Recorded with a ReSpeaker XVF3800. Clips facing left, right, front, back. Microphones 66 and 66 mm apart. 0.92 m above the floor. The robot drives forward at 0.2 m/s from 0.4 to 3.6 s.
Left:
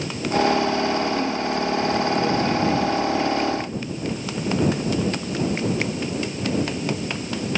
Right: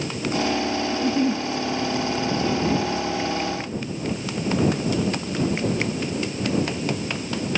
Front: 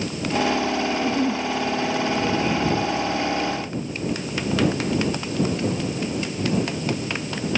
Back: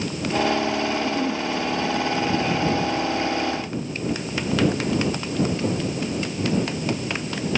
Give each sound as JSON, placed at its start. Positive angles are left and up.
{"t": 0.9, "sound": "a giggle", "azimuth_deg": -50, "distance_m": 1.4}